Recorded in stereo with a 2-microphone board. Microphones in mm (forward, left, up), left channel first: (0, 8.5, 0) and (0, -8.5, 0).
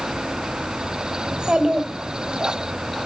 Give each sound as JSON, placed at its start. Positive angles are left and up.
{"t": 1.3, "sound": "a child speaking", "side_deg": -60, "distance_m": 2.0}